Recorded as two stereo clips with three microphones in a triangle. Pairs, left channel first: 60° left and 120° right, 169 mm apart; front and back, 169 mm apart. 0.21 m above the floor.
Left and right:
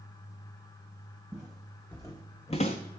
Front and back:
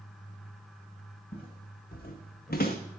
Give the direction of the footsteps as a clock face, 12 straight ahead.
1 o'clock.